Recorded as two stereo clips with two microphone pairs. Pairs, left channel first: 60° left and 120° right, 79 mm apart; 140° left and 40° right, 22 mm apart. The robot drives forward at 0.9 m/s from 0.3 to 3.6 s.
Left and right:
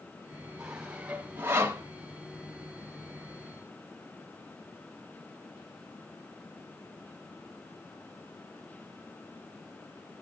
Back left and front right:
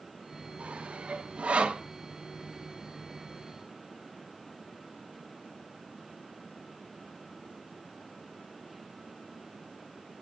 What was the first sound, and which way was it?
Sawing, 40° right.